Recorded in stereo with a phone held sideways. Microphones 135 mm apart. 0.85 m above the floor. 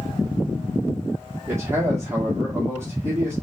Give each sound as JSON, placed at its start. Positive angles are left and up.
{"t": 1.5, "sound": "a man speaking", "side_deg": -20, "distance_m": 2.5}